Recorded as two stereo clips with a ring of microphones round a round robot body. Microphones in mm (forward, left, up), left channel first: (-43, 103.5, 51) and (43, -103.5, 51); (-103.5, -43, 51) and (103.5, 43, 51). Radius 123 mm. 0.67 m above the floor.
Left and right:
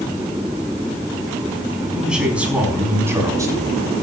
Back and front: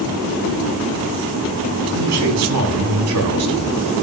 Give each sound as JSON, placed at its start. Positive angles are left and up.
{"t": 1.9, "sound": "a man speaking", "azimuth_deg": 20, "distance_m": 5.0}